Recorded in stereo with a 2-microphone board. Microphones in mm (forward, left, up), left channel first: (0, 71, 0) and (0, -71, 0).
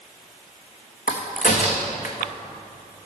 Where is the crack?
75° left (ahead or behind), 1.5 m.